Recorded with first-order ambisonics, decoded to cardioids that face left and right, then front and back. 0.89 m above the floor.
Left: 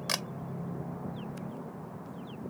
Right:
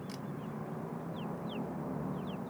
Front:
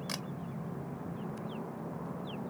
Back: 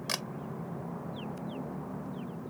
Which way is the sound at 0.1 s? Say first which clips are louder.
Left 17 dB, back 7 dB; 110° left.